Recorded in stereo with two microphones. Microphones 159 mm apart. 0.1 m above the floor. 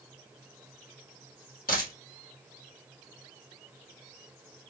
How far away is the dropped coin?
About 1.7 m.